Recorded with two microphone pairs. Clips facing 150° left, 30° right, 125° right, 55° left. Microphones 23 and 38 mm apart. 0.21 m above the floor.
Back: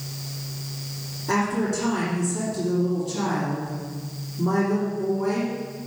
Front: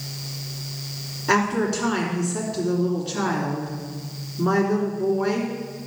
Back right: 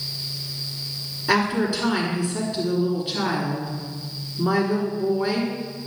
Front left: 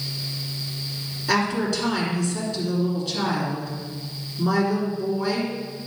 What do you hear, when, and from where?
1.3 s a woman speaking: 55° right, 3 m